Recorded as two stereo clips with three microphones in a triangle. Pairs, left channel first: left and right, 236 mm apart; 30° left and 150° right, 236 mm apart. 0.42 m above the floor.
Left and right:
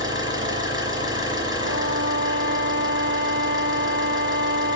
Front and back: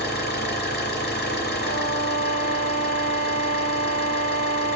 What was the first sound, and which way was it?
An engine running, 15° right.